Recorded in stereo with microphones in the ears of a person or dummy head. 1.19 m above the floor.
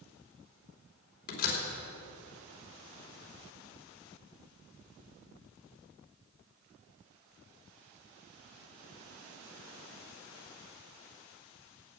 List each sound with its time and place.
1.3 s a door slam: 55° left (ahead or behind), 3 m